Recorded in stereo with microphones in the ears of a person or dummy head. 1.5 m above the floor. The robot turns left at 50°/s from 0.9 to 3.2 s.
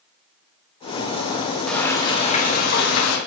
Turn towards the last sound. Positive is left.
turn(degrees=100)